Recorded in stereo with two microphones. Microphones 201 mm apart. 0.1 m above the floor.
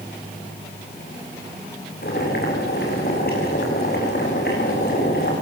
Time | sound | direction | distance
2.0 | boiling | 55° left (ahead or behind) | 8 m